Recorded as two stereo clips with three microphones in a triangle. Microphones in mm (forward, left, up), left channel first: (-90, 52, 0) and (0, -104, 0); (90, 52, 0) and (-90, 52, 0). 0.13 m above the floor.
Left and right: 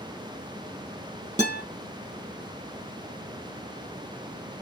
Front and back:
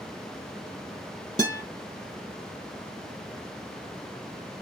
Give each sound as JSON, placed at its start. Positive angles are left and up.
{"t": 1.4, "sound": "a guitar", "azimuth_deg": -120, "distance_m": 3.0}